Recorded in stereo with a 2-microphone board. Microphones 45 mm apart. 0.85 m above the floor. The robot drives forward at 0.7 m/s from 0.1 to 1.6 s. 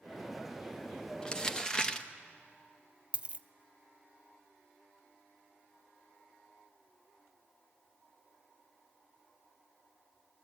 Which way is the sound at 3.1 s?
25° right (ahead or behind).